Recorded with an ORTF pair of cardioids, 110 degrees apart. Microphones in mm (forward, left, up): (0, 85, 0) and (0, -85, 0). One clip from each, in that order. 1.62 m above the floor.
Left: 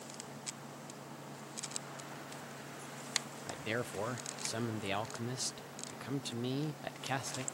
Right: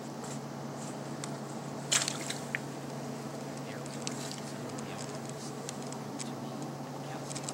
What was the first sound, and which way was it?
A machine running, 55° right.